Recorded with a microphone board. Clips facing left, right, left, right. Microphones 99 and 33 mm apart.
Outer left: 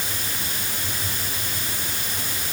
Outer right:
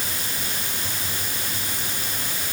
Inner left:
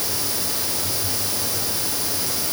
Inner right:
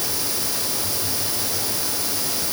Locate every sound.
Only background noise.